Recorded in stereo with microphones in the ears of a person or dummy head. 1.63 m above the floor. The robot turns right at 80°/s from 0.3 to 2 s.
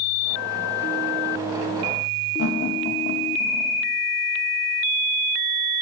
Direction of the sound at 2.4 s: 85° left.